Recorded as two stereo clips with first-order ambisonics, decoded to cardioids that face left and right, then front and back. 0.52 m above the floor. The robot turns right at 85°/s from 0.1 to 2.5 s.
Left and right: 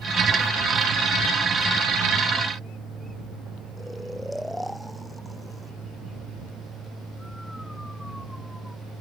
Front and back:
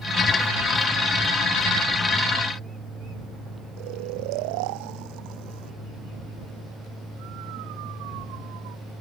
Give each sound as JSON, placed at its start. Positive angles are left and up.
{"t": 3.8, "sound": "snoring", "azimuth_deg": 175}